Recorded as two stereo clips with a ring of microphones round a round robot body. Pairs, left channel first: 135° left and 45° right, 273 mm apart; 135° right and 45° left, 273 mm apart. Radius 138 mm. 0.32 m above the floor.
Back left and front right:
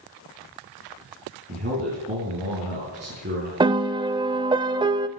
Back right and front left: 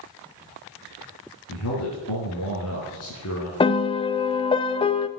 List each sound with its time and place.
1.5 s a man speaking: 100° right, 4 m
3.6 s a piano: 95° right, 0.6 m